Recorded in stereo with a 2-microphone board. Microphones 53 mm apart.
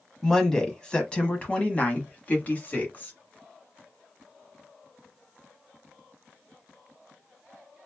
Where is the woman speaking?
5° left (ahead or behind), 1.1 m; by 3.1 s 35° left (ahead or behind), 1.6 m.